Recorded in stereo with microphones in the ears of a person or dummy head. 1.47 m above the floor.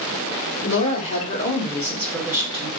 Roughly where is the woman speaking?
Left.